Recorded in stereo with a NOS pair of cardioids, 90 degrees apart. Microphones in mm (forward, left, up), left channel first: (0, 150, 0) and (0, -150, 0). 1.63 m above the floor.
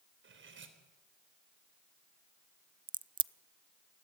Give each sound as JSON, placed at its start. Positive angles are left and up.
{"t": 0.2, "sound": "cutlery clinking", "azimuth_deg": -40, "distance_m": 3.5}
{"t": 2.9, "sound": "a crack", "azimuth_deg": -15, "distance_m": 0.5}